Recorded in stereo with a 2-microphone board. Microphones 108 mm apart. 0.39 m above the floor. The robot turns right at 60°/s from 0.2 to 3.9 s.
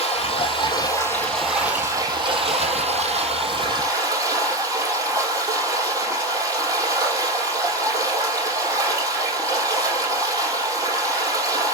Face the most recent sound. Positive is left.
turn(degrees=-35)